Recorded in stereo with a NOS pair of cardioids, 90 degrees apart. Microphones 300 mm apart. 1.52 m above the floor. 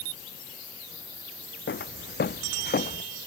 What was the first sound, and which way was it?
Footsteps, 40° left.